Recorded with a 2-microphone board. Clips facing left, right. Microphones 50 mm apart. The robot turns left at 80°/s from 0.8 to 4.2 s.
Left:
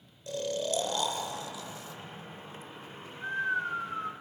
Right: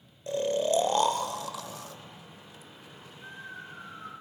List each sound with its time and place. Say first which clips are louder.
0.3 s snoring: right 6 dB; 30° right (ahead or behind), 0.7 m; by 4.1 s 65° left (ahead or behind), 0.7 m